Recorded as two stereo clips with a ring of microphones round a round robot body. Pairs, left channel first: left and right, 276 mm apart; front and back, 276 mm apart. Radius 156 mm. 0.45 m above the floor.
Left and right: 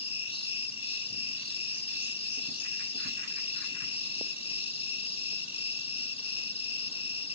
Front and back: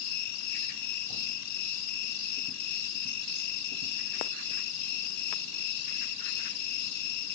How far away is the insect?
About 1.0 m.